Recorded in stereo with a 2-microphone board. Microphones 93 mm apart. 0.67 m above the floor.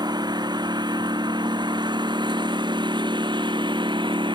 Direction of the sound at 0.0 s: 50° right (ahead or behind).